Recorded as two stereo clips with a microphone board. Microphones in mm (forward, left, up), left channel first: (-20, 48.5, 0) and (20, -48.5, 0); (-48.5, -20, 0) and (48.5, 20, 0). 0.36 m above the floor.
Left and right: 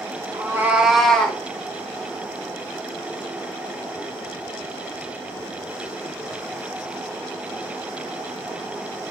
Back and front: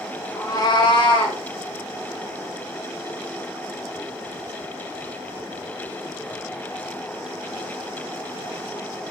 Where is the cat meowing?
115° right, 0.6 m; by 1.4 s 175° right, 0.8 m.